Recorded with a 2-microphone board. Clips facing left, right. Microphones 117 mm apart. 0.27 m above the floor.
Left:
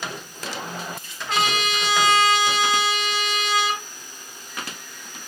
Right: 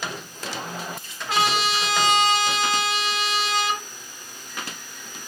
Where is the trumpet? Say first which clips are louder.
Right 1 dB; 5° right (ahead or behind), 3 m.